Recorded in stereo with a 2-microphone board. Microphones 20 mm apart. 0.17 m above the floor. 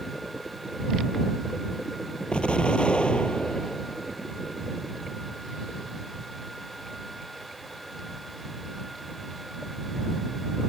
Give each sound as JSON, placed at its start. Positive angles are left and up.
{"t": 2.3, "sound": "an explosion", "side_deg": 60}